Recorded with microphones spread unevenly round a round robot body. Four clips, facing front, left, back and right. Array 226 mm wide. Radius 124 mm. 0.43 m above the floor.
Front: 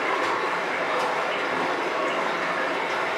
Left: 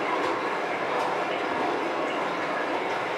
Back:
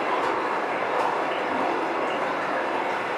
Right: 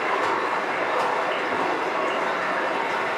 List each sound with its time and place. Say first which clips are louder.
0.0 s running water: right 3 dB, even; 170° left, 1.5 m